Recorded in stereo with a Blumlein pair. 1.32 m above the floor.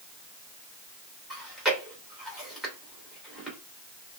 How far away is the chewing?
About 2 m.